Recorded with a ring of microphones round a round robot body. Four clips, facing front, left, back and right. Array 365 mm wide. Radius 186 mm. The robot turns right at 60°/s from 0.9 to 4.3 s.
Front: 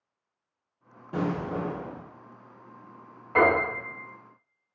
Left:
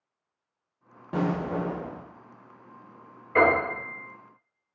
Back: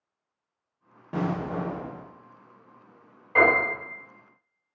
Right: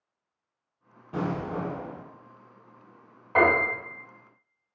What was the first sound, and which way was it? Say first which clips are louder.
An explosion: left 3 dB, even; 115° left.